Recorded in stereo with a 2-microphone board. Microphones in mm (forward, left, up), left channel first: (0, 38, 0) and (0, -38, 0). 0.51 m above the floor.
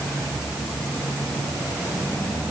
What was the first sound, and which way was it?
Only background noise.